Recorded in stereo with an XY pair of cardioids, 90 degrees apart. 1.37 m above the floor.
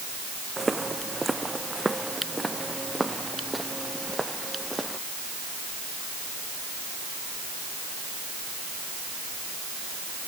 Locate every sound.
0.6 s footsteps: 20° right; by 5.0 s 10° right